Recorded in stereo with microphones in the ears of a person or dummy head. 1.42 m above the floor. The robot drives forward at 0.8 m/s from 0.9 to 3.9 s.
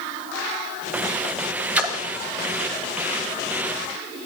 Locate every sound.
1.8 s a splash: 10° right (ahead or behind), 1.8 m